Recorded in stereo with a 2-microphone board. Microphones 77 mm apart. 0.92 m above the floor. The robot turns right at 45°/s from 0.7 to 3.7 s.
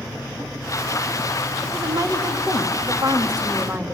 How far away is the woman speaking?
About 1.8 m.